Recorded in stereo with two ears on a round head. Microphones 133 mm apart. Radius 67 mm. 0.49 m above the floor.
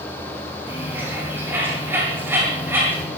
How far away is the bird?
About 8.5 m.